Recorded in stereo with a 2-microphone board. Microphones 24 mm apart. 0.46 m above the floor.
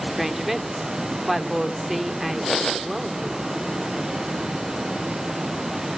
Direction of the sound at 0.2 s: 10° right (ahead or behind).